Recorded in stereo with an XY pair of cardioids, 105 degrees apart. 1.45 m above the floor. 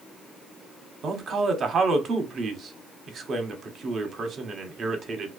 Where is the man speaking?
50° right, 0.7 m.